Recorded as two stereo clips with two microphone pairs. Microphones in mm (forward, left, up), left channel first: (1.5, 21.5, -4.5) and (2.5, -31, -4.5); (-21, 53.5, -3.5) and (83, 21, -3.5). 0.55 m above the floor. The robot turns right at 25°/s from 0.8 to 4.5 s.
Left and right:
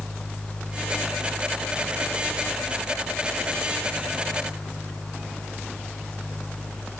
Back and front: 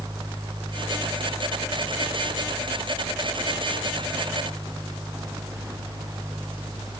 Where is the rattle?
No rattle in this recording.